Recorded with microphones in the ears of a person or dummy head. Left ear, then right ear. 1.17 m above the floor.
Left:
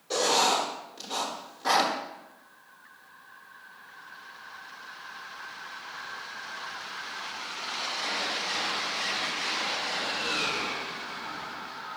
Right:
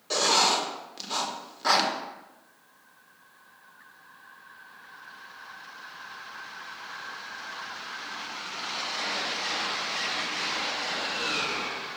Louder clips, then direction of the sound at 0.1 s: Right 1 dB; 25° right (ahead or behind).